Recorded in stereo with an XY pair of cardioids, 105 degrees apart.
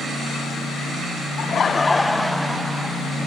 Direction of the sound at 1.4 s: 60° left.